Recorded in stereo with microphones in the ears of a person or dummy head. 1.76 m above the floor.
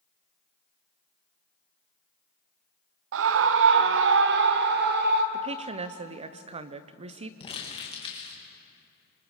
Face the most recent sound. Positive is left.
turn(degrees=30)  # may be behind; listen again after turning